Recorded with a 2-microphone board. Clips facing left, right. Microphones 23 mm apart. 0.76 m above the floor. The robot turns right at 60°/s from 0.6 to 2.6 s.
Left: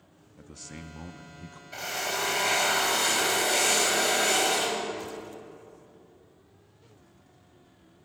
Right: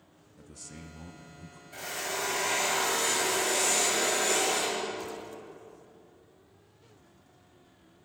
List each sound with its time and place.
0.4 s a man speaking: 30° left, 0.9 m; by 1.6 s 90° left, 0.9 m
1.7 s a drill: 40° left, 2.5 m; by 5.2 s 95° left, 2.5 m